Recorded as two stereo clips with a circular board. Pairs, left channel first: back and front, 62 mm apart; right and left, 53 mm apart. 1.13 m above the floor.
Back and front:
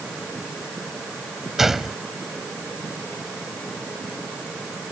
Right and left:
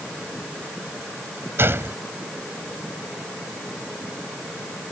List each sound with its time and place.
1.6 s a gunshot: 85° left